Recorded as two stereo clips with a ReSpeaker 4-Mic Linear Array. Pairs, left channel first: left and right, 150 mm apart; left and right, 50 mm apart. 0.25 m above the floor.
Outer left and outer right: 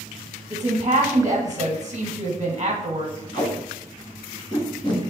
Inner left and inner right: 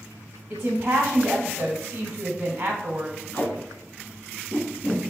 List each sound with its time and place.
0.5 s a woman speaking: 25° right (ahead or behind), 1.0 m
3.3 s tape being pulled: 30° left (ahead or behind), 1.5 m